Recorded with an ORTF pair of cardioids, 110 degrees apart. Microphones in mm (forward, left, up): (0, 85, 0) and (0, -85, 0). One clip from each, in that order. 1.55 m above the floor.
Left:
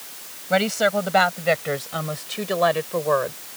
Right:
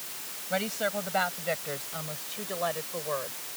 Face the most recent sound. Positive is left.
turn(degrees=65)